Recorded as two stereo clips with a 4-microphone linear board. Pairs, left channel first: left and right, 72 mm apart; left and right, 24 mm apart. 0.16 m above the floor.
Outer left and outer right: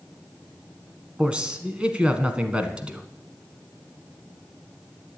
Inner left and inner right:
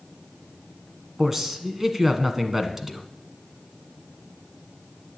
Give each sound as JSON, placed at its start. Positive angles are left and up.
{"t": 1.2, "sound": "a man speaking", "side_deg": -15, "distance_m": 1.3}